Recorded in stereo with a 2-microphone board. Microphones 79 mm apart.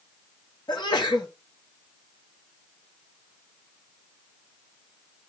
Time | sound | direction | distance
0.7 | a sneeze | 65° left (ahead or behind) | 1.8 m